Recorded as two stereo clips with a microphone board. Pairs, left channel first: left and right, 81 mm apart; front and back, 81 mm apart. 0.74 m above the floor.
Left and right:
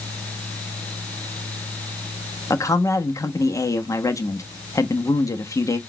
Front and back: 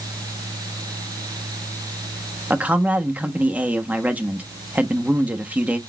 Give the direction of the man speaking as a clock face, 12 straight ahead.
8 o'clock.